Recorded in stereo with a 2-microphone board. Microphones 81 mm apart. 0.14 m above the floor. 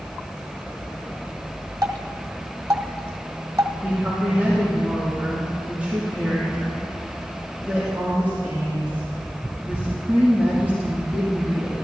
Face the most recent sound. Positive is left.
turn(degrees=-20)  # may be behind; listen again after turning